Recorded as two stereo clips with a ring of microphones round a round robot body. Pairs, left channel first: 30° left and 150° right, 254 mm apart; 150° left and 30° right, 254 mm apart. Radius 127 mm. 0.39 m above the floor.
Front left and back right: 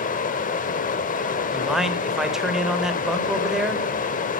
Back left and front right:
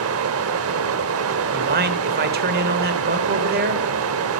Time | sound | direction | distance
0.0 | running water | 20° right | 0.8 m
1.5 | a man speaking | 65° right | 1.1 m